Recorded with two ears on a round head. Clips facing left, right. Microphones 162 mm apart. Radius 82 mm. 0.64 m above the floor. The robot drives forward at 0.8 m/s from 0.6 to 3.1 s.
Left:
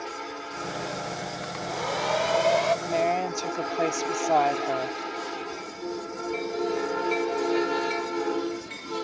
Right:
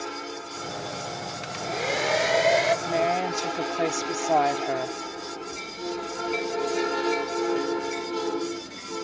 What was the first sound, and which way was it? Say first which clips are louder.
A hair dryer: right 3 dB; 35° right (ahead or behind).